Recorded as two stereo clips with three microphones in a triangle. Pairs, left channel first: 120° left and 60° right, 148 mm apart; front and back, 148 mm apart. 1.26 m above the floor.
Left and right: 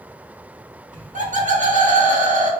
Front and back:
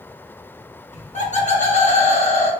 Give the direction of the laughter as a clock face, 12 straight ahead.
1 o'clock.